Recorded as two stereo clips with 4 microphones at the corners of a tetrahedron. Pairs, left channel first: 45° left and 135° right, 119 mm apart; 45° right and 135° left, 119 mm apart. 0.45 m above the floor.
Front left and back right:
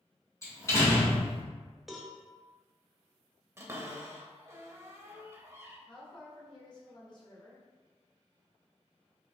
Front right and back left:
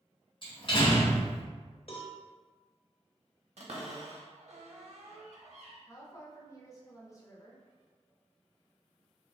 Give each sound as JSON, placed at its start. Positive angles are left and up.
{"t": 0.4, "sound": "a door slam", "azimuth_deg": -15, "distance_m": 1.5}
{"t": 1.9, "sound": "a cowbell", "azimuth_deg": -50, "distance_m": 0.7}
{"t": 3.6, "sound": "a cupboard door", "azimuth_deg": 155, "distance_m": 0.8}
{"t": 5.9, "sound": "a woman speaking", "azimuth_deg": 5, "distance_m": 1.3}